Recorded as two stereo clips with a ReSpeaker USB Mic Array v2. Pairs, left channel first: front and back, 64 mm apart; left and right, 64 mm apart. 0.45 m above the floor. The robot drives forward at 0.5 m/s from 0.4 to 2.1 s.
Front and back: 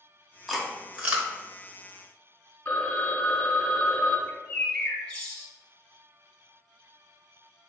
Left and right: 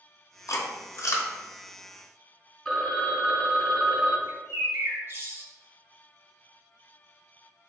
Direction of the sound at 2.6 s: 30° left.